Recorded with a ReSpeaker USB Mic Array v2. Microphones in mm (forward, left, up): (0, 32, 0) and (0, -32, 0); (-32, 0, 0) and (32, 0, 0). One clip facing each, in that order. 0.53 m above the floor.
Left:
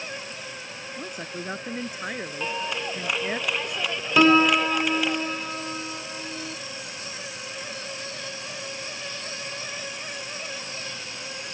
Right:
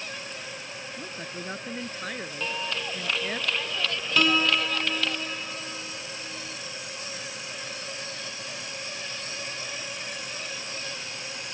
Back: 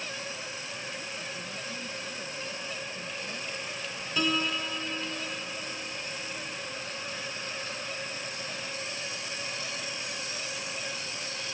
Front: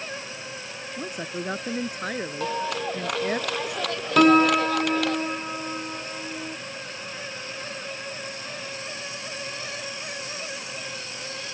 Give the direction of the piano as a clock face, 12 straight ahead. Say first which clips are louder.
Left 7 dB, front 14 dB; 11 o'clock.